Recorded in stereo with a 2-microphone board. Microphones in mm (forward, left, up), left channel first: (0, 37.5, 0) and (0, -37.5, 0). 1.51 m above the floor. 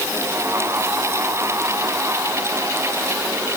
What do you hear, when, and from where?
Only background noise.